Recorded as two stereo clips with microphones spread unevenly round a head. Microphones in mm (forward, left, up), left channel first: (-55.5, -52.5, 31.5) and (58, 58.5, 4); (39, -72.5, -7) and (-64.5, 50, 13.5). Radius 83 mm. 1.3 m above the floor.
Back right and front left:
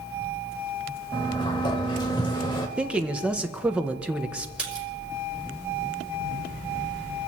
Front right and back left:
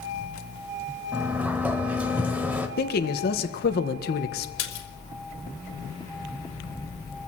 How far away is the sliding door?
About 1.2 m.